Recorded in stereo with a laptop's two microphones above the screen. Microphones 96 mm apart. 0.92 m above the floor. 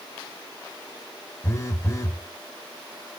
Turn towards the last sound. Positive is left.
turn(degrees=30)  # may be behind; listen again after turning